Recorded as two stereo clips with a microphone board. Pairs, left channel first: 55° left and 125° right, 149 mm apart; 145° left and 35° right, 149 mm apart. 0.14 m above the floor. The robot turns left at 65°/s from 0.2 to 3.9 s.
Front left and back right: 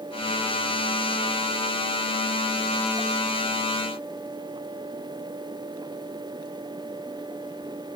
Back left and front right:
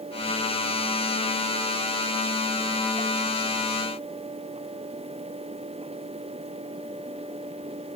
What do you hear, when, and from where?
Only background noise.